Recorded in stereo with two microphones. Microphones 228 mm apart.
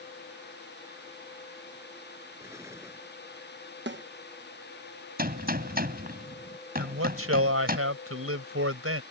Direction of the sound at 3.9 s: 50° right (ahead or behind).